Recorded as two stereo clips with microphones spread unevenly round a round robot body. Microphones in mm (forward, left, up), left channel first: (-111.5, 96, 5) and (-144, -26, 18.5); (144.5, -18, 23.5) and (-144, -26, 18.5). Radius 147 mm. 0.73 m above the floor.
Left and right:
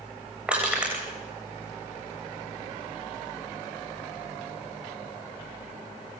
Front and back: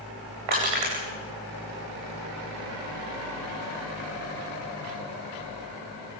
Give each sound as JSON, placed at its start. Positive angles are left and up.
{"t": 0.5, "sound": "crushing", "azimuth_deg": 175, "distance_m": 9.5}